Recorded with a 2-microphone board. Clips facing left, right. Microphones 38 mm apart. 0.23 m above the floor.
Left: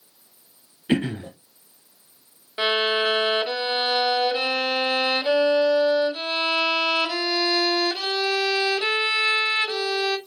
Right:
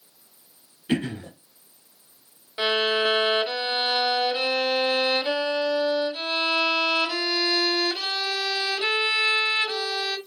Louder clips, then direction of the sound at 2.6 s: Left 1 dB; 15° left (ahead or behind).